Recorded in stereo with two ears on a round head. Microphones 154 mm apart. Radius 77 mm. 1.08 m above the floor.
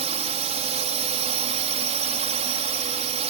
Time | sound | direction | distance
0.0 | a drone | 40° right (ahead or behind) | ?